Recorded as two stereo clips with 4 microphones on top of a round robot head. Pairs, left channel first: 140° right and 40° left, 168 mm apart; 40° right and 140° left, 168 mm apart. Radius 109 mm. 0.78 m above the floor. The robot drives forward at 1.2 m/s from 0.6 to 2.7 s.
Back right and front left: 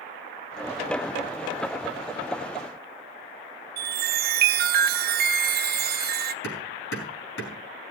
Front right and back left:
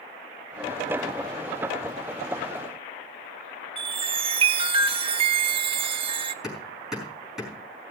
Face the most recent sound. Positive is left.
turn(degrees=-135)